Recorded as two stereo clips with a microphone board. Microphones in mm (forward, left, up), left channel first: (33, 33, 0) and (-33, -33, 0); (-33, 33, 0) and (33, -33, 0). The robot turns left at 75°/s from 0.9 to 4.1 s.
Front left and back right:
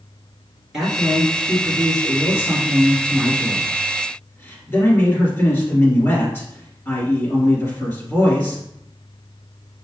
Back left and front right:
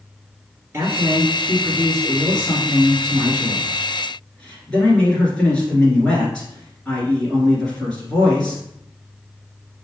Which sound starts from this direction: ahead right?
A man speaking, at 0.7 s.